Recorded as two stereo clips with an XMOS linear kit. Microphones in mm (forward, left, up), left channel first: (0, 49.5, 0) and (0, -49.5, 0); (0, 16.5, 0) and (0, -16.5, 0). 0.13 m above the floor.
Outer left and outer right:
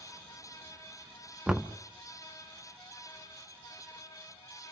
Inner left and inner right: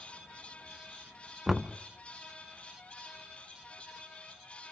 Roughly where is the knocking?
Centre.